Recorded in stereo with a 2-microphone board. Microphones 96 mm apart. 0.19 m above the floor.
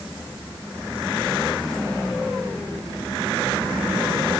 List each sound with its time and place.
Only background noise.